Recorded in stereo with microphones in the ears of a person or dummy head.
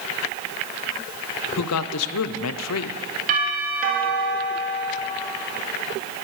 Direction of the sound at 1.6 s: 80° left.